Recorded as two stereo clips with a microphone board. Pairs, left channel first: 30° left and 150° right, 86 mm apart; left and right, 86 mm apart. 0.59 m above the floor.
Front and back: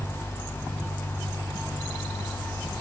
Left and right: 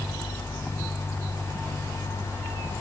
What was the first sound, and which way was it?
Only background noise.